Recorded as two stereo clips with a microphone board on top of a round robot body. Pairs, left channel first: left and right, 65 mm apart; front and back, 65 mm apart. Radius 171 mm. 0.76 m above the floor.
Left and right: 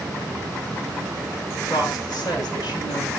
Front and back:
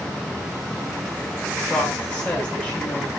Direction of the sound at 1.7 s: 70° left.